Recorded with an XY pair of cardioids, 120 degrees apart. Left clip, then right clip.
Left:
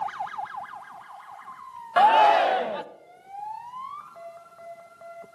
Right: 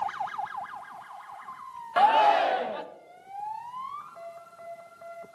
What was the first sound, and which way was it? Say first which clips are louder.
A shout: left 3 dB; 20° left.